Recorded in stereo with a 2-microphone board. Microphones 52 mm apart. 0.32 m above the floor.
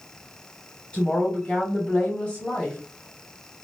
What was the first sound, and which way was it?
A woman speaking, 20° left (ahead or behind).